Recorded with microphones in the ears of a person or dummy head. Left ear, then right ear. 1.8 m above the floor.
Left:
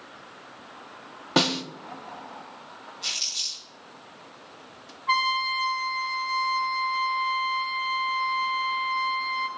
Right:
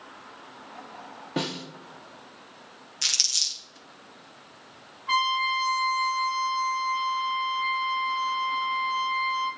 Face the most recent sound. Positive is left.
turn(degrees=15)  # may be behind; listen again after turning